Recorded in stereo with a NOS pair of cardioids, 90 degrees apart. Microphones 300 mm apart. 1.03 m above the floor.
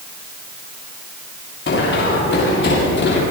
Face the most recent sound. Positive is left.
turn(degrees=40)